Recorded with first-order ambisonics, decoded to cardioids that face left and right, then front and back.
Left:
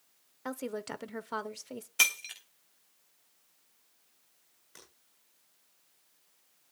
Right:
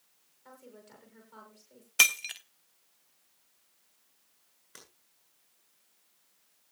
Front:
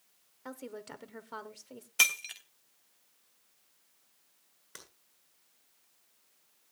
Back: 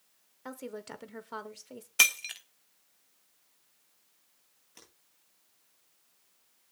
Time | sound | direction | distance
0.5 | a woman speaking | 100° left | 0.8 m
2.0 | breaking glass | 120° right | 0.9 m
4.8 | breaking glass | 25° right | 8 m